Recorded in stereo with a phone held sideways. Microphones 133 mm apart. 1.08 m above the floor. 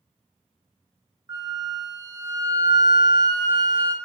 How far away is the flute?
About 0.5 m.